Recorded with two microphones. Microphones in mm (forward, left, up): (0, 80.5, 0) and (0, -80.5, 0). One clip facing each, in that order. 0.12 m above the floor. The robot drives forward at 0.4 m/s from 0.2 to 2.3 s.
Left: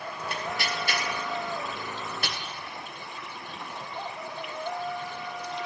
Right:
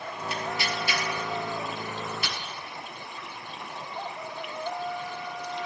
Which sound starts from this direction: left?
Tearing paper, at 0.3 s.